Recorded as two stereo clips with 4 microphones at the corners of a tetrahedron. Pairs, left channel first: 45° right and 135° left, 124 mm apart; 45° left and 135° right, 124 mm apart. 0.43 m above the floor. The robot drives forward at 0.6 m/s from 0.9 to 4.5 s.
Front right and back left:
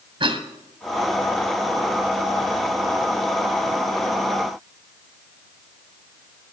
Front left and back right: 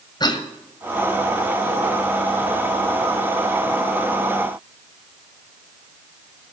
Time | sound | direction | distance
0.2 | a cough | 95° left | 1.9 m